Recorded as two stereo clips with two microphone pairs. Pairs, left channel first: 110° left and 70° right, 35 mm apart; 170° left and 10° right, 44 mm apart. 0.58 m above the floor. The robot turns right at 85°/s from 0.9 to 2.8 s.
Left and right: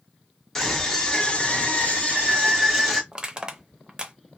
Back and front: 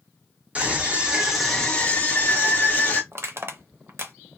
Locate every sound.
0.6 s a scream: 40° left, 1.6 m; by 3.0 s 160° right, 1.6 m
3.1 s crushing: straight ahead, 0.5 m